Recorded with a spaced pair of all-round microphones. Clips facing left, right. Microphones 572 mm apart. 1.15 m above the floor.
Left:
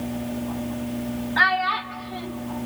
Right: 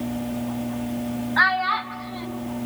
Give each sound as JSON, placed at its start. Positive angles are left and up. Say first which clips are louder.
{"t": 1.4, "sound": "a child speaking", "louder": "even", "side_deg": 55, "distance_m": 1.3}